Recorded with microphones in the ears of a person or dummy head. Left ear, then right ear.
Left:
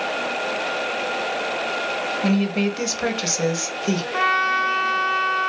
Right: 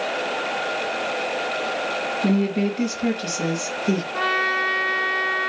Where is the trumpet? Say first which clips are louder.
Left 3 dB; 40° left (ahead or behind), 0.7 m.